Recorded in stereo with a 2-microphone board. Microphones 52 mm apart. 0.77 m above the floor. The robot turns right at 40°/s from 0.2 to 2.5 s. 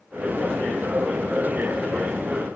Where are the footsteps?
No footsteps in this recording.